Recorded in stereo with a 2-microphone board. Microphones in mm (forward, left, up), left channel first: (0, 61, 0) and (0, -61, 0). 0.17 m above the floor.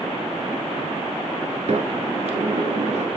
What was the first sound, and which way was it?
A sliding door, 65° right (ahead or behind).